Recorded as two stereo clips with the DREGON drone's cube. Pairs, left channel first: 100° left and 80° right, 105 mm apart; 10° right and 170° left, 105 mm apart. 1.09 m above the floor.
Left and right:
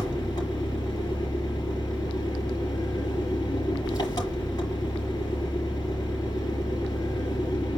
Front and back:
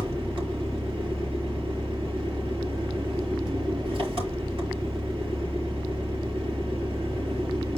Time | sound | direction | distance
0.0 | an engine running | 145° left | 8.5 m